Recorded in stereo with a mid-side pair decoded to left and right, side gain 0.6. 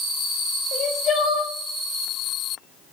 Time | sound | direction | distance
0.7 | crying | 45° left | 7 m